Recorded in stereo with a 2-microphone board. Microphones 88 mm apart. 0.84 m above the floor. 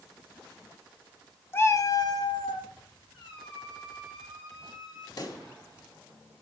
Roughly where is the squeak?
Left.